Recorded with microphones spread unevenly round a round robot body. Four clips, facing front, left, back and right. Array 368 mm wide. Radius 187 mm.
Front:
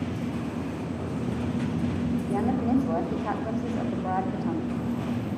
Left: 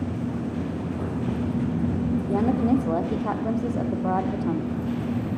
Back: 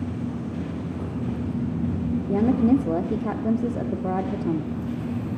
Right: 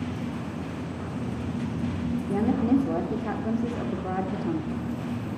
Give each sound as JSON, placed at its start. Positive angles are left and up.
{"t": 2.3, "sound": "a woman speaking", "azimuth_deg": 180, "distance_m": 0.9}